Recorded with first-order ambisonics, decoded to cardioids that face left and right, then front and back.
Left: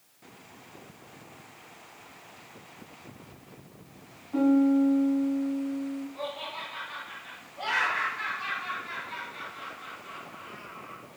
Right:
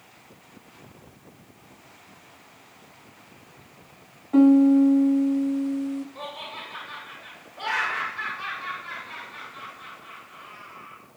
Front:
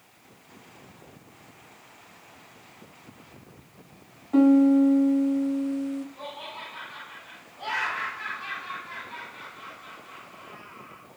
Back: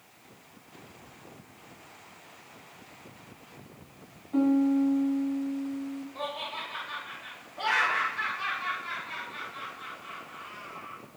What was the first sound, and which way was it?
A piano, 50° right.